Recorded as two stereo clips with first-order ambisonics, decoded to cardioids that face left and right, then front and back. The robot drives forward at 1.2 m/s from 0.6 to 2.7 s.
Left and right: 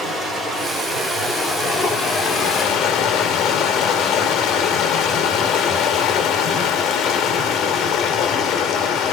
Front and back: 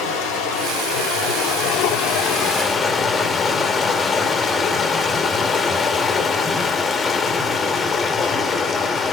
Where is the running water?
15° left, 3 m; by 9.1 s 70° left, 1.0 m.